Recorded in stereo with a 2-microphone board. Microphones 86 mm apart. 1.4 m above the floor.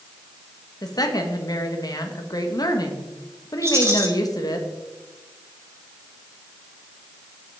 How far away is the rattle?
About 2.5 m.